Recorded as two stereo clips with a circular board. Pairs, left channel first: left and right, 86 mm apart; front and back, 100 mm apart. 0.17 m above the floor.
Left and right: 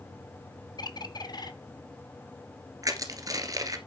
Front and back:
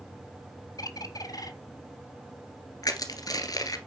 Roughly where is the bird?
Ahead left.